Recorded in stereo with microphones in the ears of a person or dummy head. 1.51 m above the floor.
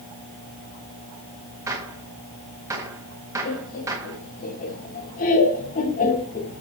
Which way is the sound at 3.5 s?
50° left (ahead or behind).